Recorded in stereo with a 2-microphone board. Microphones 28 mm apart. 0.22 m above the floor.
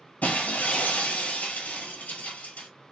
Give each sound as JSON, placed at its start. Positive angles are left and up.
{"t": 0.2, "sound": "breaking glass", "side_deg": 75, "distance_m": 1.3}